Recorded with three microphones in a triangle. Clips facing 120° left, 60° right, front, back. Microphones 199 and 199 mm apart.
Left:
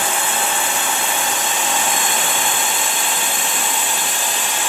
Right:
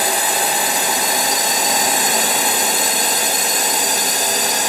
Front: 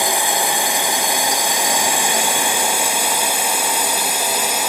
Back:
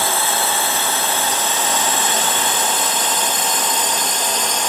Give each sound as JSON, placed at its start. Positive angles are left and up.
{"t": 0.0, "sound": "a drone", "azimuth_deg": -65}